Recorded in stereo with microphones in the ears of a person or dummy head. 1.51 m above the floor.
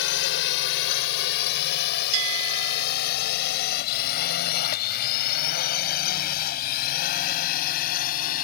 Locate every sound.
0.0 s a drone: 60° left (ahead or behind); by 8.4 s 45° left (ahead or behind)
2.1 s a bell: 75° right (ahead or behind)